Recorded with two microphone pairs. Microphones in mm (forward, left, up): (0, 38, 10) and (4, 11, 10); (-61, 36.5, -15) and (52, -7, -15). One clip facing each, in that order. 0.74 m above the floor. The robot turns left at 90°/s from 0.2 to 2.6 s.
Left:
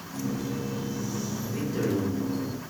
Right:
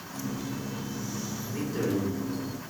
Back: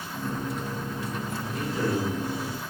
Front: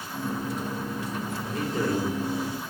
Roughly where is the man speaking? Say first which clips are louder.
Left 1 dB, front 1 dB; ahead left.